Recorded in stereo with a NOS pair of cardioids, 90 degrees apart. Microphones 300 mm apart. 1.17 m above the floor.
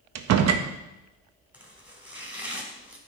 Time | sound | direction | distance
0.1 | a door slam | 65° right | 0.8 m
1.5 | chopping | 5° right | 2.5 m